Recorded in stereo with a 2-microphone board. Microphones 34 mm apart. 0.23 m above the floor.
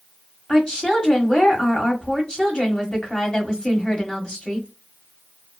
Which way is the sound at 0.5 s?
20° left (ahead or behind).